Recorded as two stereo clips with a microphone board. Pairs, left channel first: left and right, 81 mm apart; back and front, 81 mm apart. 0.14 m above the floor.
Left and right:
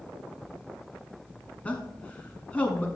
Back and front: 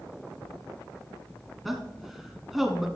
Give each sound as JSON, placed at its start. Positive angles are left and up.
{"t": 1.6, "sound": "a man speaking", "azimuth_deg": 85, "distance_m": 1.1}